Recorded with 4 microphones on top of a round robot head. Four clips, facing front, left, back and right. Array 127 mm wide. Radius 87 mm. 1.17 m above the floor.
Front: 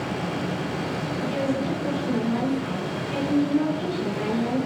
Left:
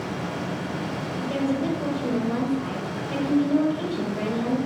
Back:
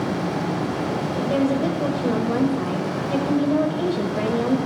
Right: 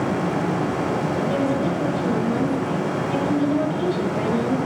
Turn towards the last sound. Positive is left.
turn(degrees=-170)